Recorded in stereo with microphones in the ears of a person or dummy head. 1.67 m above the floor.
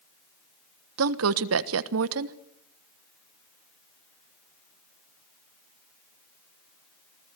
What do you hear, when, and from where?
1.0 s a woman speaking: 75° right (ahead or behind), 1.2 m